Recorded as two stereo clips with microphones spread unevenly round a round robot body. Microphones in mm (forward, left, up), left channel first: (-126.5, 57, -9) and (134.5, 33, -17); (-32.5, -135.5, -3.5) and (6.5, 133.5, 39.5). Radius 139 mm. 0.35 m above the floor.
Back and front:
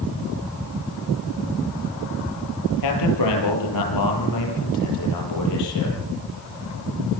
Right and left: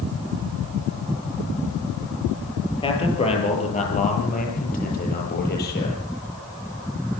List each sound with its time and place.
2.8 s a man speaking: 170° right, 8.5 m; by 6.0 s 150° right, 10.5 m